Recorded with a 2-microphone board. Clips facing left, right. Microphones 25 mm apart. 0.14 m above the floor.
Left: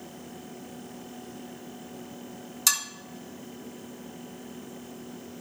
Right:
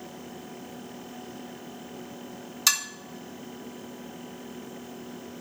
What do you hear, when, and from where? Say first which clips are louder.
2.7 s dishes clattering: right 2 dB; 20° right (ahead or behind), 0.7 m